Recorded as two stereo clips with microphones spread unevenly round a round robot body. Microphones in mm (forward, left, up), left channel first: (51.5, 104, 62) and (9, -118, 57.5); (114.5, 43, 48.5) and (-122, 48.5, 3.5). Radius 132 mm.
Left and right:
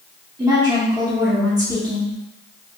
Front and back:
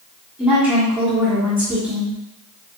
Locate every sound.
0.4 s a woman speaking: 135° right, 1.4 m